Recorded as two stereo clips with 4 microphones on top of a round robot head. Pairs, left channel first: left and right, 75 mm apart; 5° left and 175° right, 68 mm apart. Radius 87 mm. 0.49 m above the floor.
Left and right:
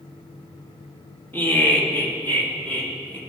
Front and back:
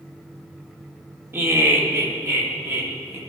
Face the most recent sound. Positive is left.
turn(degrees=145)